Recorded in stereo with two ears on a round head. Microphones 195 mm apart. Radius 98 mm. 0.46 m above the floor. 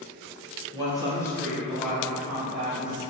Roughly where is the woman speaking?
Centre.